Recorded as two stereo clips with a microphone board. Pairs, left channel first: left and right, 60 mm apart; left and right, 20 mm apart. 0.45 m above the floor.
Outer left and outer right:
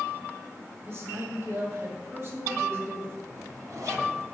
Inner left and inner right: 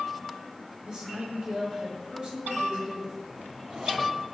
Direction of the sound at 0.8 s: 45° right (ahead or behind).